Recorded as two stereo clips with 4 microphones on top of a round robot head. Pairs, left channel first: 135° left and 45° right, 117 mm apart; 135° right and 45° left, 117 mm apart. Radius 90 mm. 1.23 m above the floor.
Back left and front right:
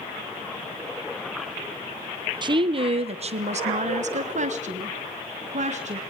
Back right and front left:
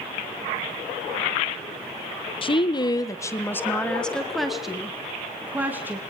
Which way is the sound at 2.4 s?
95° right.